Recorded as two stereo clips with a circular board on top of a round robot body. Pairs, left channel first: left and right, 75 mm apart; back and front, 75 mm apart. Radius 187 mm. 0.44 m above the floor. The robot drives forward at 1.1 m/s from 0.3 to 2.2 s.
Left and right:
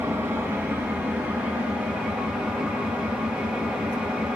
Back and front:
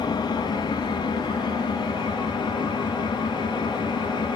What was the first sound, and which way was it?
An engine running, 155° right.